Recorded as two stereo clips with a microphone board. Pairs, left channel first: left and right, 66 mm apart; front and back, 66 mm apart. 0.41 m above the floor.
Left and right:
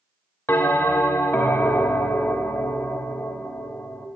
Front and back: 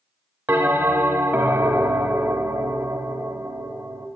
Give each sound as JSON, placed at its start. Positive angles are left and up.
{"t": 0.5, "sound": "a bell", "azimuth_deg": 135, "distance_m": 0.8}